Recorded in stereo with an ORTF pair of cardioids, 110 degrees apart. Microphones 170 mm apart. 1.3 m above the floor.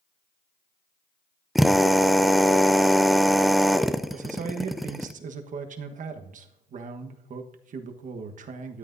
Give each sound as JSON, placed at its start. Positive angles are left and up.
{"t": 1.6, "sound": "a drill", "azimuth_deg": 0, "distance_m": 0.5}
{"t": 4.1, "sound": "a man speaking", "azimuth_deg": -50, "distance_m": 1.3}